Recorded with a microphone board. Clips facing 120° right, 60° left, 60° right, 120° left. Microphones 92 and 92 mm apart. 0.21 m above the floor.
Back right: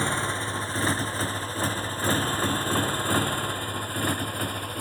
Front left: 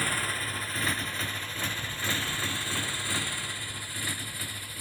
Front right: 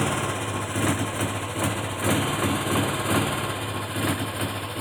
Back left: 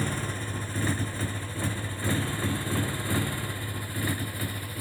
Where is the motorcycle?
55° right; by 4.8 s 80° right.